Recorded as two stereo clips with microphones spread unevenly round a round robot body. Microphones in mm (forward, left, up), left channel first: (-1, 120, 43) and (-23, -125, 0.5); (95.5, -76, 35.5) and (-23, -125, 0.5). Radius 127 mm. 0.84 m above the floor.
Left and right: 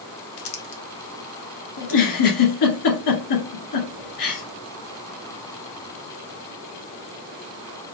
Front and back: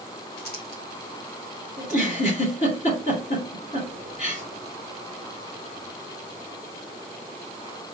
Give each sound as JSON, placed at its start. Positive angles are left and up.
{"t": 0.4, "sound": "crumpling", "azimuth_deg": 55, "distance_m": 0.9}
{"t": 1.8, "sound": "a giggle", "azimuth_deg": 85, "distance_m": 1.9}